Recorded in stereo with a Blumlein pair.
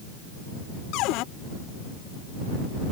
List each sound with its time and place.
0.9 s a cupboard door: 40° left